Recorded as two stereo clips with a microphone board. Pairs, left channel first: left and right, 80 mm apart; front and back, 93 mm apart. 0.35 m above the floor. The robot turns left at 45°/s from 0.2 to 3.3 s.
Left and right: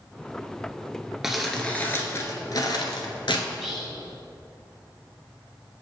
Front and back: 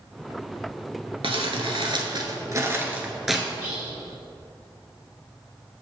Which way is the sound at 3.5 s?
170° right.